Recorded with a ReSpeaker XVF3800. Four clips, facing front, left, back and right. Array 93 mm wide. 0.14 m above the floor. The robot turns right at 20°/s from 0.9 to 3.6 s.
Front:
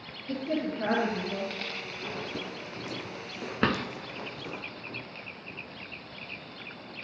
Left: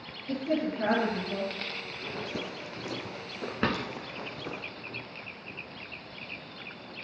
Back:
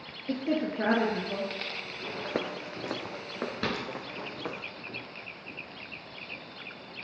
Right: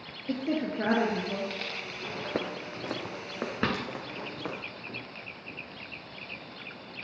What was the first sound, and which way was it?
A woman speaking, 145° right.